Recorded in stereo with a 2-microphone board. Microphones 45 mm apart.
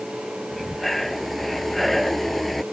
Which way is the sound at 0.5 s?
5° left (ahead or behind).